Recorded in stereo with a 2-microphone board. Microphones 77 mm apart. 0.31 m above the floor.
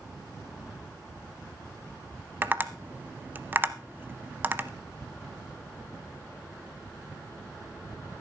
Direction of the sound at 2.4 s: 25° right (ahead or behind).